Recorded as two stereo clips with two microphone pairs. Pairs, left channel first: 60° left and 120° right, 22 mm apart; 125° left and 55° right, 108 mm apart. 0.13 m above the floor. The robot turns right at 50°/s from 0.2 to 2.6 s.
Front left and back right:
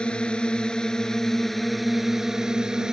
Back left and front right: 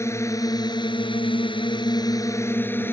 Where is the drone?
70° left; by 2.9 s 170° right.